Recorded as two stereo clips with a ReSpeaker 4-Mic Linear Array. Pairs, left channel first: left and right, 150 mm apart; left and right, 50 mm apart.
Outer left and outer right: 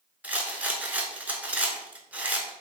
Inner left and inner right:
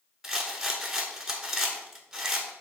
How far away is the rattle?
About 0.7 m.